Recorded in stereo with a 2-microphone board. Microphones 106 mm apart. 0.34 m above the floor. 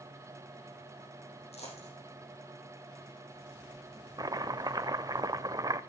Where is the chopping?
35° right (ahead or behind), 0.7 m.